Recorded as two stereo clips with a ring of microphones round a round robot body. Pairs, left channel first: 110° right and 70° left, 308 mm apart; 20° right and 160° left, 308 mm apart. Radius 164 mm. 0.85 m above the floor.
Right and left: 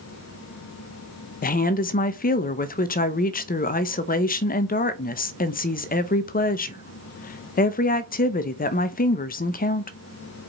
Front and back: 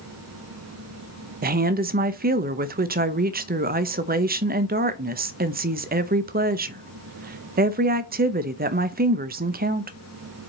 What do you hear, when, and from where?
1.4 s a woman speaking: 160° right, 0.7 m